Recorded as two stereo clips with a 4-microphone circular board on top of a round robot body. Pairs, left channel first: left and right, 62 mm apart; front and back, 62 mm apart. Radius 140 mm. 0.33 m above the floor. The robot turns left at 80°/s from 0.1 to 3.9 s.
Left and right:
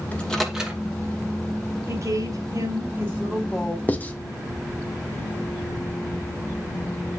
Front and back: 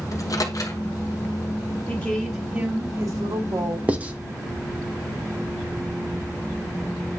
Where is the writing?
130° left, 1.7 m.